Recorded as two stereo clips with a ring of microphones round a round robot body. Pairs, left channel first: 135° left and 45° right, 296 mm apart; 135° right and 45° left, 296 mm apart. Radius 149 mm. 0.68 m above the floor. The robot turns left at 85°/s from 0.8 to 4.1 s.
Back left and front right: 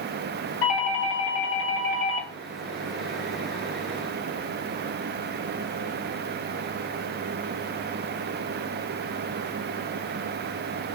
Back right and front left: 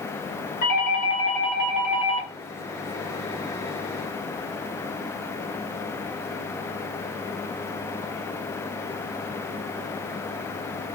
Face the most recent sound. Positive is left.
turn(degrees=-95)